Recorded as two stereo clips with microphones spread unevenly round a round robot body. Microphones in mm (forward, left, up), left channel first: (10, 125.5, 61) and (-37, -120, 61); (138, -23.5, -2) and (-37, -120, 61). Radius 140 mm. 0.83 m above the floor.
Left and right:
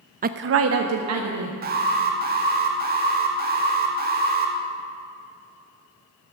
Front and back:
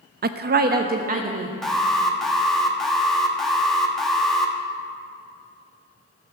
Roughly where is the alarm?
Ahead right.